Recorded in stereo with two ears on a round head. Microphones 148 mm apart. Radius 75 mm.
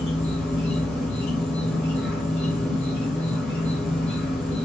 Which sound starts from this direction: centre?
An insect, at 0.0 s.